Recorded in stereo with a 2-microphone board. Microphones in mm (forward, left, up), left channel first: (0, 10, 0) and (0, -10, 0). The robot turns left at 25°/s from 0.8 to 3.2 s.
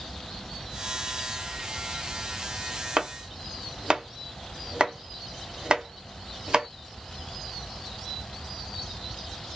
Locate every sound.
3.0 s chopping: 45° right (ahead or behind), 0.7 m